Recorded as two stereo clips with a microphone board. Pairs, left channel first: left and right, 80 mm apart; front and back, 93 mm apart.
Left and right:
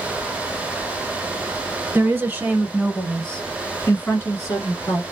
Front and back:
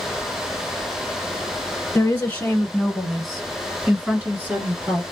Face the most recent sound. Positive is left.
turn(degrees=120)